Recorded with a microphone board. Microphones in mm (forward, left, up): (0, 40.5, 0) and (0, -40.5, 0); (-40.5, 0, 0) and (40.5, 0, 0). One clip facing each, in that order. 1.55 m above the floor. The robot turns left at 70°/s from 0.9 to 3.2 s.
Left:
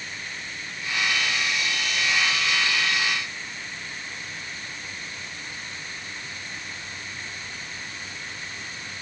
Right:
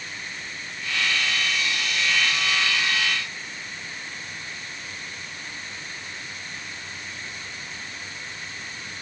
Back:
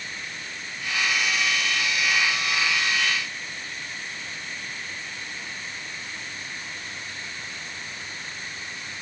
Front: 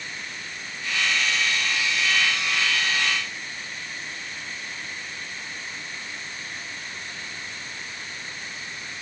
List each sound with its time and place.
Only background noise.